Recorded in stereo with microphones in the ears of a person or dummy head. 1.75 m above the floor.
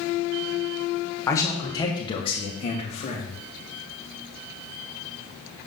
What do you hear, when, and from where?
1.3 s a man speaking: 15° left (ahead or behind), 1.7 m; by 3.4 s 35° left (ahead or behind), 2.5 m